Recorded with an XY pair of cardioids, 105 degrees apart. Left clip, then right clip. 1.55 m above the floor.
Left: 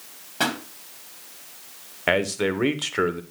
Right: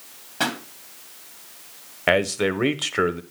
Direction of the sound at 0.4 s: 10° left.